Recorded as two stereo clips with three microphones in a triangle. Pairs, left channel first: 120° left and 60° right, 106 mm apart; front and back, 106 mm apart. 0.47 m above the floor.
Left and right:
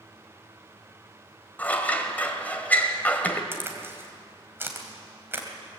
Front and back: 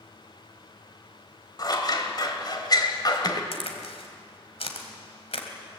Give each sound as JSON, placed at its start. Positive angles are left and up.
{"t": 1.6, "sound": "scissors", "azimuth_deg": 45, "distance_m": 1.8}
{"t": 3.5, "sound": "a crack", "azimuth_deg": 5, "distance_m": 2.5}